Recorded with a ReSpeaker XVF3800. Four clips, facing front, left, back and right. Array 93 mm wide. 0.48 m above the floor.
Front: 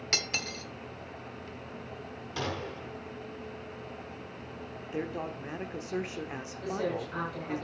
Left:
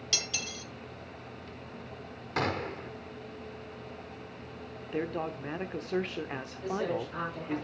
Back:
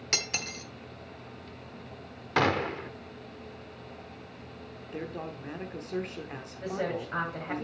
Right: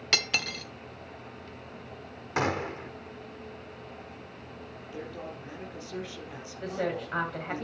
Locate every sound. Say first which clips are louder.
0.1 s cutlery clinking: right 8 dB, even; 95° right, 0.8 m
2.4 s a gunshot: right 3 dB, back 10 dB; 165° right, 0.7 m
4.9 s a man speaking: left 7 dB, front 2 dB; 75° left, 1.0 m
6.6 s a woman speaking: right 1 dB, even; 115° right, 2 m